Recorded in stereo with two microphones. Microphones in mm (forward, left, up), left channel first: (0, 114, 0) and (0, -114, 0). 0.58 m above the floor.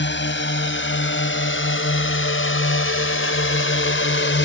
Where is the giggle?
No giggle in this recording.